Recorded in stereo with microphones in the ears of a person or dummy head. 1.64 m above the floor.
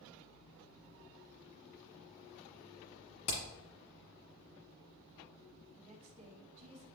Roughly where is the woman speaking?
Right.